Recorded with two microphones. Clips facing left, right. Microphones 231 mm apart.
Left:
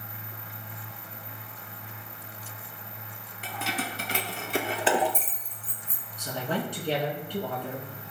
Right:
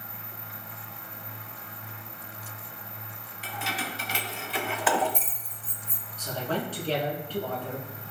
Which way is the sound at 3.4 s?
55° left (ahead or behind).